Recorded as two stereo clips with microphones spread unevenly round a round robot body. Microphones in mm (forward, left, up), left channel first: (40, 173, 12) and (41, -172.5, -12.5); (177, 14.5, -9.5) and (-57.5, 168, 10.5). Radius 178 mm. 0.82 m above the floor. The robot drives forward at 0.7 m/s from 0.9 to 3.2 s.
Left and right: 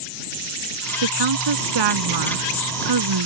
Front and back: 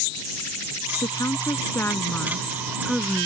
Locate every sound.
1.0 s a woman speaking: 115° right; by 3.3 s 125° right